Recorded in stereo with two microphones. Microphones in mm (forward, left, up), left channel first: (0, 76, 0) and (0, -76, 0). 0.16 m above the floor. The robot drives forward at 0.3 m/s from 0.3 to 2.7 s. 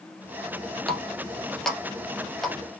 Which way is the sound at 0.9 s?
5° left (ahead or behind).